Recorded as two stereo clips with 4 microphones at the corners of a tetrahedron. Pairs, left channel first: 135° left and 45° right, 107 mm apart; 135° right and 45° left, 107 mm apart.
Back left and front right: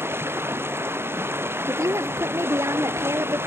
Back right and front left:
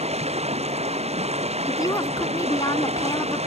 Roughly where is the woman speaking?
Right.